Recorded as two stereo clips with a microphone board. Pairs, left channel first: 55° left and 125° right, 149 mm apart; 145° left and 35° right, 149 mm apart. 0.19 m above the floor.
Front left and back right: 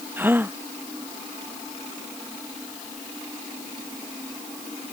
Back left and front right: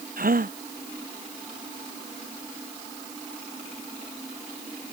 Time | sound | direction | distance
0.2 | a gasp | 50° right | ?